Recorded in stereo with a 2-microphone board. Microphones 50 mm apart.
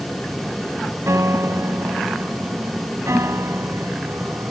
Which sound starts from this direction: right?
A piano, at 1.1 s.